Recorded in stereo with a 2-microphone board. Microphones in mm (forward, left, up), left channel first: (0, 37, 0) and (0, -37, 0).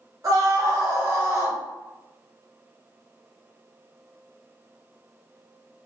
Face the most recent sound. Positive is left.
turn(degrees=-30)  # may be behind; listen again after turning